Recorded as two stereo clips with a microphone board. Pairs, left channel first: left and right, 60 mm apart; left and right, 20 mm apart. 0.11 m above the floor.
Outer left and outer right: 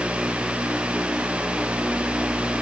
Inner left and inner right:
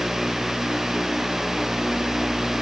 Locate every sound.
Only background noise.